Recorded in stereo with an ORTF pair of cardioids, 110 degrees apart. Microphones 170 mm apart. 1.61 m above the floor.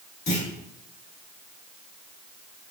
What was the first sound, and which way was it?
A clunk, 65° left.